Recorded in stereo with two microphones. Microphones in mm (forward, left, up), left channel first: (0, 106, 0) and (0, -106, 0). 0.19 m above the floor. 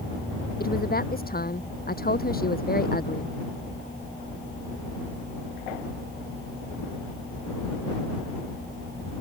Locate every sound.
0.6 s a woman speaking: 45° left (ahead or behind)